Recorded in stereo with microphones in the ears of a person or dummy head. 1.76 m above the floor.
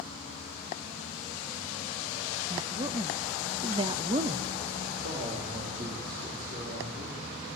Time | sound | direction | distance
2.5 | a woman speaking | 25° right (ahead or behind) | 0.7 m
5.0 | a man speaking | 45° right (ahead or behind) | 5 m